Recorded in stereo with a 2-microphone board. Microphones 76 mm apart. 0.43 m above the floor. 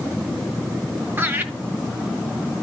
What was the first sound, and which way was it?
Laughter, 30° right (ahead or behind).